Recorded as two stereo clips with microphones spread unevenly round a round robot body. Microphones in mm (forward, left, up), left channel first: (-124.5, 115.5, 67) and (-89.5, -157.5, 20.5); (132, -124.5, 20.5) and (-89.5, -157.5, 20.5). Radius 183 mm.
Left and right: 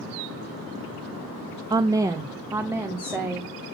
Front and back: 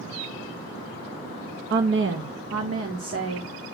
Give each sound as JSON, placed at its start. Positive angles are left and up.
{"t": 1.7, "sound": "a woman speaking", "azimuth_deg": -150, "distance_m": 0.8}